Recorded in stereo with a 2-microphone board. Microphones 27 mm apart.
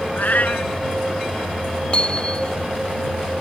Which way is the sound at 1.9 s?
35° left (ahead or behind).